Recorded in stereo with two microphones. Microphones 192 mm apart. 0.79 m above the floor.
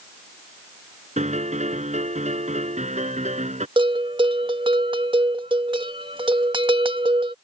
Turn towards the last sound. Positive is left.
turn(degrees=-25)  # may be behind; listen again after turning